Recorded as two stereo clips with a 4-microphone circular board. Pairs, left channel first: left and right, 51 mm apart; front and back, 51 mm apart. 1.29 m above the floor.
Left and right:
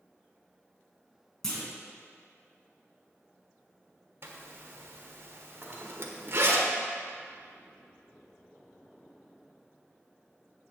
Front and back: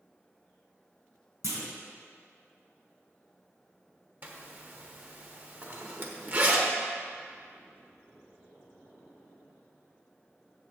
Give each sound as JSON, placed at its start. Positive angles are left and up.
{"t": 1.4, "sound": "a clunk", "azimuth_deg": 170, "distance_m": 3.0}
{"t": 4.2, "sound": "a zipper", "azimuth_deg": -130, "distance_m": 1.3}
{"t": 5.6, "sound": "cutlery clinking", "azimuth_deg": -140, "distance_m": 2.0}